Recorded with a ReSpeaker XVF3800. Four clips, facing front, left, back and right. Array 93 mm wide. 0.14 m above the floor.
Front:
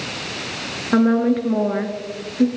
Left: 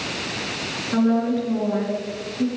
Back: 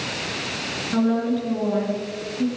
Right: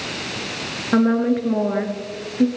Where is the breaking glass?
No breaking glass in this recording.